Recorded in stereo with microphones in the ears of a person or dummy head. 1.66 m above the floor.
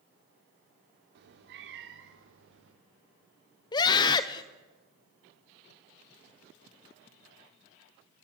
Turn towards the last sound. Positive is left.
turn(degrees=25)  # may be behind; listen again after turning